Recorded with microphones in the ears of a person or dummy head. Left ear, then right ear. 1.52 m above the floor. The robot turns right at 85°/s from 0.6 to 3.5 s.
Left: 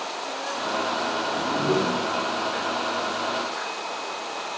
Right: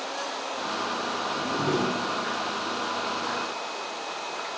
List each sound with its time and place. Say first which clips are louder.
1.3 s a whoosh: left 3 dB; 155° right, 2.5 m; by 2.0 s 95° right, 2.5 m